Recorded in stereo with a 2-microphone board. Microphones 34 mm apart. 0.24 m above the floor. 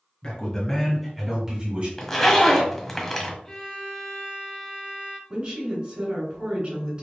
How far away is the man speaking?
About 2 m.